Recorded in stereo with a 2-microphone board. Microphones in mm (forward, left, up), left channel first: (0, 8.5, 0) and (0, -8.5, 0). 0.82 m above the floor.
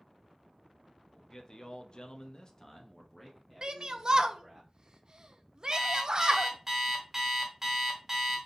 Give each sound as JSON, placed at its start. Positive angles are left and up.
{"t": 1.1, "sound": "a man speaking", "side_deg": 25, "distance_m": 0.8}
{"t": 3.6, "sound": "a shout", "side_deg": -40, "distance_m": 0.5}
{"t": 5.7, "sound": "an alarm clock", "side_deg": -20, "distance_m": 1.2}